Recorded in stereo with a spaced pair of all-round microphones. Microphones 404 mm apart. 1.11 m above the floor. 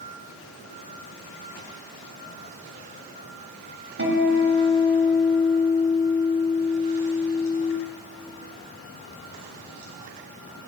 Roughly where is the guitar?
Right.